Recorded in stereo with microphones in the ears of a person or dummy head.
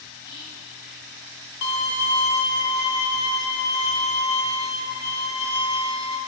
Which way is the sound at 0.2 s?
20° left (ahead or behind).